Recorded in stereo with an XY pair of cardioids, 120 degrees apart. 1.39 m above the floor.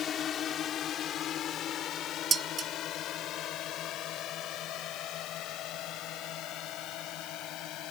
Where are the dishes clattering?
40° right.